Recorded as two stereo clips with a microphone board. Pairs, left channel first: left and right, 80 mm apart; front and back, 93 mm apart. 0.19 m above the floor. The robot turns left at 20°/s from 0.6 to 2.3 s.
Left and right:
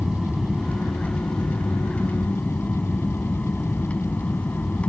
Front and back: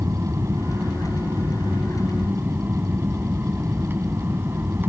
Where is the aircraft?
Straight behind; by 4.9 s 145° left.